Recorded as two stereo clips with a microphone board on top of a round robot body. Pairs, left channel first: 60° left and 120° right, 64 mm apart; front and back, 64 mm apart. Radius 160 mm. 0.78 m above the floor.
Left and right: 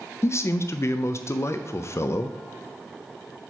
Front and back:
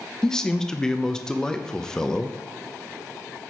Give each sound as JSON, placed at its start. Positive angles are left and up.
{"t": 0.2, "sound": "a man speaking", "azimuth_deg": 75, "distance_m": 0.5}